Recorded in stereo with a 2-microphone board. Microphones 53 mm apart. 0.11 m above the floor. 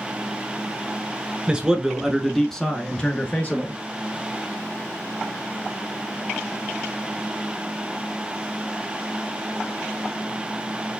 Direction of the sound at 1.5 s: 20° right (ahead or behind).